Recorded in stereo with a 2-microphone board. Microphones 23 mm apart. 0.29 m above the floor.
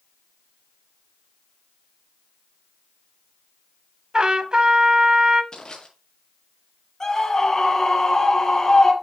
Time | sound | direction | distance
4.1 | a trumpet | 40° right (ahead or behind) | 1.2 m
5.5 | crushing | 40° left (ahead or behind) | 7.5 m
7.0 | a scream | 25° left (ahead or behind) | 7 m